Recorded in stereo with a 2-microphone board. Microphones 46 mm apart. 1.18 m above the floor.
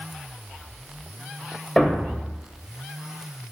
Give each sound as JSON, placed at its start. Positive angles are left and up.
{"t": 1.8, "sound": "a thud", "side_deg": 10, "distance_m": 2.5}